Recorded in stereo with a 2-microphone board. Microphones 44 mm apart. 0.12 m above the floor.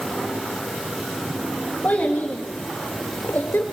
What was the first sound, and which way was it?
A child speaking, 35° left (ahead or behind).